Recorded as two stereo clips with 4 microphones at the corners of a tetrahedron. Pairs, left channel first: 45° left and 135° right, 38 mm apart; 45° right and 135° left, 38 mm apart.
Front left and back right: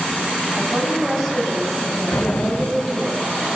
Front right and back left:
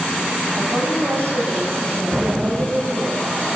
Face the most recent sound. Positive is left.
turn(degrees=60)